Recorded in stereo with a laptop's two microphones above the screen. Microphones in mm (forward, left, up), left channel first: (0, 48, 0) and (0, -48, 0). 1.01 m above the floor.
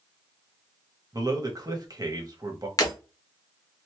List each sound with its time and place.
1.1 s a man speaking: 40° right (ahead or behind), 1.1 m
2.8 s breaking glass: 40° left (ahead or behind), 0.9 m